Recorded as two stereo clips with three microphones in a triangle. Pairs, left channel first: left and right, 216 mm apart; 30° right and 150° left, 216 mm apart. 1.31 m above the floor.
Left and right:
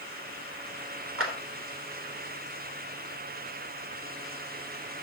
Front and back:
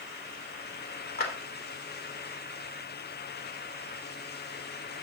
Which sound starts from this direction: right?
A clap, at 1.2 s.